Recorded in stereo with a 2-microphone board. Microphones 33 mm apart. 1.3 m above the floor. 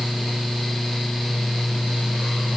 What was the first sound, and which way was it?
Only background noise.